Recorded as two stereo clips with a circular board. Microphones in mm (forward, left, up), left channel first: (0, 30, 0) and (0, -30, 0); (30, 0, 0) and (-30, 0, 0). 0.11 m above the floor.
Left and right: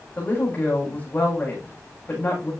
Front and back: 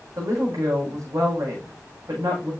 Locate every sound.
0.2 s a woman speaking: 150° left, 7 m